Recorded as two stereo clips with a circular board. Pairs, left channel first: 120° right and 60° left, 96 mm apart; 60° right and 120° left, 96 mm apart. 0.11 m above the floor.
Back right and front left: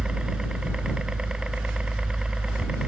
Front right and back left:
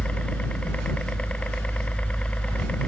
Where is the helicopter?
10° right.